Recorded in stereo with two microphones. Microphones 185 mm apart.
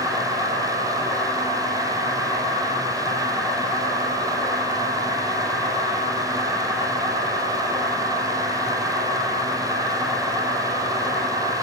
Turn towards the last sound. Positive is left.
turn(degrees=-35)  # may be behind; listen again after turning